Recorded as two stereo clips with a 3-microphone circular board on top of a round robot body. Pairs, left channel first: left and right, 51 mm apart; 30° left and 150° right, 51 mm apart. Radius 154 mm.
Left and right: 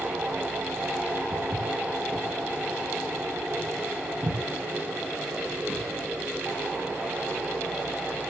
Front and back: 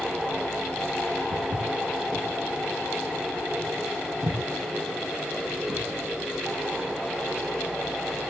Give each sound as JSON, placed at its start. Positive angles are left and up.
{"t": 1.3, "sound": "footsteps", "azimuth_deg": -160, "distance_m": 6.0}